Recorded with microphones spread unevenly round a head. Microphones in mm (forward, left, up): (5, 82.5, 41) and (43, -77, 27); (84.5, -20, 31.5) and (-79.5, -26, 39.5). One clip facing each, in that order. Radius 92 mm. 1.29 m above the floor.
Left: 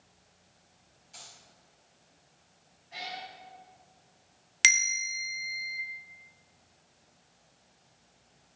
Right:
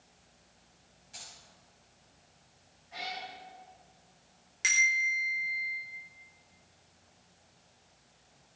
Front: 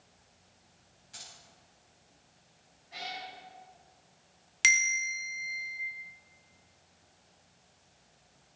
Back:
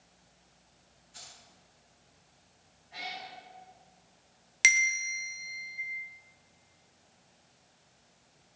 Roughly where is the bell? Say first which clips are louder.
Even, back 1 dB; left.